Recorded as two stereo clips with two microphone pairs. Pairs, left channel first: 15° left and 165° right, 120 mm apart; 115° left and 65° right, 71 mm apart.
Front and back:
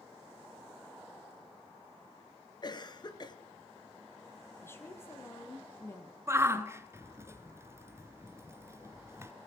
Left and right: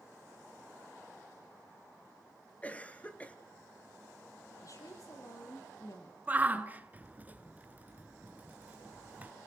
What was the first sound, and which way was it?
A cough, 50° left.